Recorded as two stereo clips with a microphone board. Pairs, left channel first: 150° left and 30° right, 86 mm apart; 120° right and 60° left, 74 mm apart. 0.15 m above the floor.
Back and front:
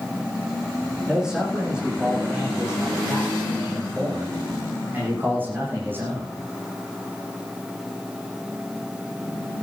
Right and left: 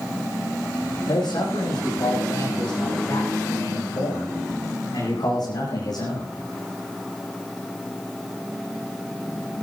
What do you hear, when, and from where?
1.1 s a man speaking: 110° right, 10 m; by 6.3 s 95° right, 8.5 m